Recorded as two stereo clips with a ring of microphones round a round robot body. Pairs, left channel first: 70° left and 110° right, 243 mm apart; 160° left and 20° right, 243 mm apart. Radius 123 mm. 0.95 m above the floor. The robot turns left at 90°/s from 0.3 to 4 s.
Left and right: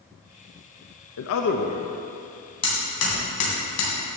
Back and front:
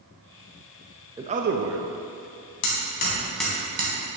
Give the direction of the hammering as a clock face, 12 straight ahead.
7 o'clock.